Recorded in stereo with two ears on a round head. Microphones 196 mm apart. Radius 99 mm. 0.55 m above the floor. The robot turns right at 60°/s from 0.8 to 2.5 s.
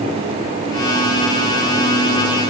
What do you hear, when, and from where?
Only background noise.